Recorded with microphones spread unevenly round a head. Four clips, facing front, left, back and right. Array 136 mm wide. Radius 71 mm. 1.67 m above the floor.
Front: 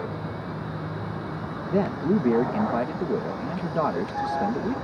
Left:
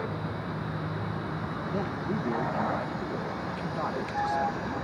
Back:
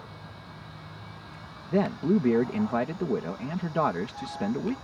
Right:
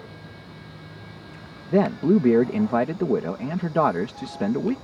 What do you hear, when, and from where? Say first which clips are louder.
0.0 s a vehicle: left 9 dB, front 13 dB; 25° left
1.7 s a man speaking: right 15 dB, front 1 dB; 75° right